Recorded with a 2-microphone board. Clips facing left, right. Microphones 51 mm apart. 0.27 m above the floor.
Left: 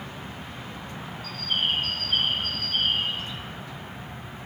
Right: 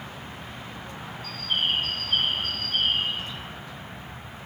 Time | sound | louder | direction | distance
1.2 | a bird | even | centre (ahead or behind) | 1.9 m